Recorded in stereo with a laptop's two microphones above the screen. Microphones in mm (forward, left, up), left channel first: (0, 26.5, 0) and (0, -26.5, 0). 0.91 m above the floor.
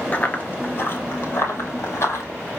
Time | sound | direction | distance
0.1 | running footsteps | 25° left (ahead or behind) | 0.9 m